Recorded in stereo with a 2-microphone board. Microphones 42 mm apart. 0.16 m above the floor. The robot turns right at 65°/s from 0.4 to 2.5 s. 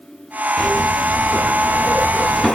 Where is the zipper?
30° left, 0.7 m; by 2.5 s 155° left, 0.7 m.